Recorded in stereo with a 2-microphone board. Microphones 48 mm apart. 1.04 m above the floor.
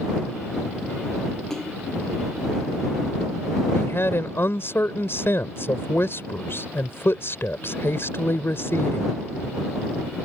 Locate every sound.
1.5 s a splash: 10° left (ahead or behind)
3.7 s a woman speaking: 55° left (ahead or behind)